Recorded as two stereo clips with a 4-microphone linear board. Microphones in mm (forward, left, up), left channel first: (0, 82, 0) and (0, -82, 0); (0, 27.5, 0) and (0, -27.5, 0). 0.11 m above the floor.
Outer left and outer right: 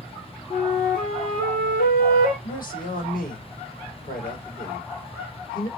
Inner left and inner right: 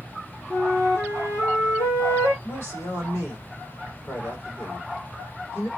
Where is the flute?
55° left (ahead or behind), 7.5 m.